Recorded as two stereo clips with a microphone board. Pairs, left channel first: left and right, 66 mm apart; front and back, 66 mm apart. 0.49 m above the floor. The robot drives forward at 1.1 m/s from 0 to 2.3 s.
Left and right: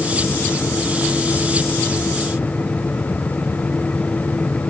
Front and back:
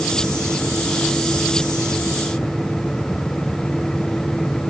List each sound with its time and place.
Only background noise.